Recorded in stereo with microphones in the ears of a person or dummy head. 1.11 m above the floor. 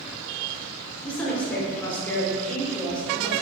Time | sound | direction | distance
1.0 | a woman speaking | 10° left (ahead or behind) | 0.8 m